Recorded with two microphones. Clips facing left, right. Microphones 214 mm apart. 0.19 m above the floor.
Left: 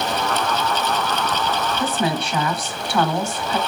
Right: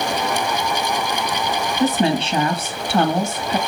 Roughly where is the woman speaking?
Right.